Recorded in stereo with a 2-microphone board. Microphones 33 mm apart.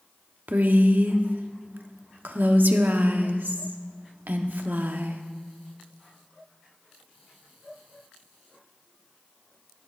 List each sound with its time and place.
0.5 s a woman speaking: 65° right (ahead or behind), 1.0 m